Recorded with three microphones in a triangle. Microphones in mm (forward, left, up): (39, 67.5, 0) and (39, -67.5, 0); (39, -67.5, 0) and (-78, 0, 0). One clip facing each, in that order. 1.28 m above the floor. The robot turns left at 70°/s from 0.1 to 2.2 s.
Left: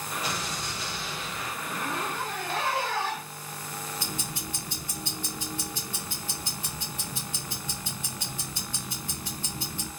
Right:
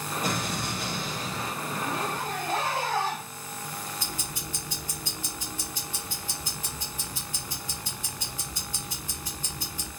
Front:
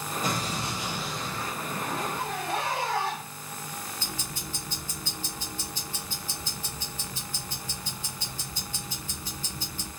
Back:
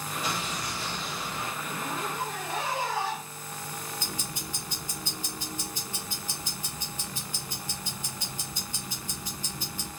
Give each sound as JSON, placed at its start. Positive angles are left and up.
{"t": 0.2, "sound": "an explosion", "azimuth_deg": -60, "distance_m": 0.8}
{"t": 1.6, "sound": "a zipper", "azimuth_deg": -5, "distance_m": 1.1}
{"t": 4.0, "sound": "ticking", "azimuth_deg": 80, "distance_m": 1.4}